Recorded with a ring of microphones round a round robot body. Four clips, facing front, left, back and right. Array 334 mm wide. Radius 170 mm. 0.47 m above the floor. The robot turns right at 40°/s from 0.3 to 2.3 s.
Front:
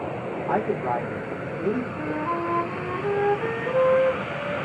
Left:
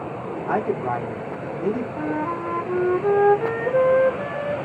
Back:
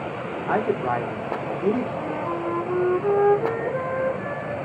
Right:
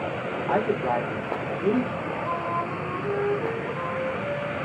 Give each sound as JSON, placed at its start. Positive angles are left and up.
{"t": 0.5, "sound": "a man speaking", "azimuth_deg": 145, "distance_m": 1.2}
{"t": 2.0, "sound": "a flute", "azimuth_deg": 90, "distance_m": 0.6}